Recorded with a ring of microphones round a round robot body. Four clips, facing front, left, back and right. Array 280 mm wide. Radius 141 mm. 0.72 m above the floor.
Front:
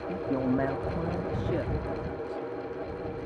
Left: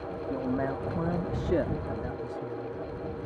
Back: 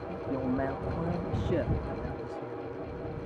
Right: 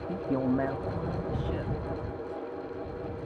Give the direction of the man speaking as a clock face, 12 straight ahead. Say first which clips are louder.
Right 3 dB, front 4 dB; 2 o'clock.